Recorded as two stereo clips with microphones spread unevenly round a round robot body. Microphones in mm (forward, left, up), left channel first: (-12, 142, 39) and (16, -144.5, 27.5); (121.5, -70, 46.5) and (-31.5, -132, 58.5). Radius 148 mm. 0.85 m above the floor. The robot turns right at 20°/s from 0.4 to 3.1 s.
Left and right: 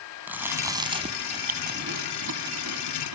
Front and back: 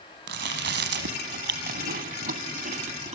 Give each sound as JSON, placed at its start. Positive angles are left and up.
{"t": 0.3, "sound": "chewing", "azimuth_deg": -170, "distance_m": 1.6}